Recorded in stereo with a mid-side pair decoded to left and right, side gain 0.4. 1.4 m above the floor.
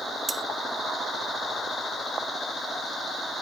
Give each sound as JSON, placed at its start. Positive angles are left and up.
{"t": 0.3, "sound": "cutlery clinking", "azimuth_deg": -20}